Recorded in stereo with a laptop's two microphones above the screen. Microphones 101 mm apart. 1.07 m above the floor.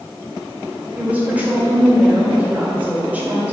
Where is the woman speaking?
15° right (ahead or behind), 2 m.